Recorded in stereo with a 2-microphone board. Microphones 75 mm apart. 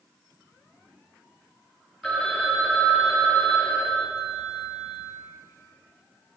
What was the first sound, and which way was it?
A phone ringing, 5° left (ahead or behind).